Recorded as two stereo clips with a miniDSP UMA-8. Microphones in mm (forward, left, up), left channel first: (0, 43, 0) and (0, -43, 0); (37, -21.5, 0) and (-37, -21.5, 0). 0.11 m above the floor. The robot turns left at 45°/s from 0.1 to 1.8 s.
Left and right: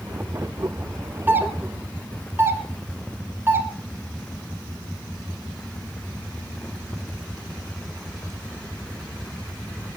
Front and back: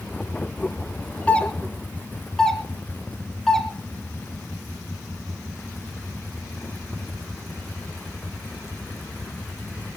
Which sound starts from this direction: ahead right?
A doorbell, at 1.3 s.